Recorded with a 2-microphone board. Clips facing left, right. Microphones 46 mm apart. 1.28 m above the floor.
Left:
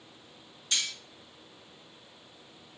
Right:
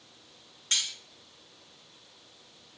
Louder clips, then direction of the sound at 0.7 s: Even; 55° right (ahead or behind).